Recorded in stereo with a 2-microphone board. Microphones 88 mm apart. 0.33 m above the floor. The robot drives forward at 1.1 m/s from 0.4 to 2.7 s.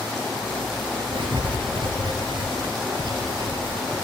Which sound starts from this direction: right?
Writing, at 1.1 s.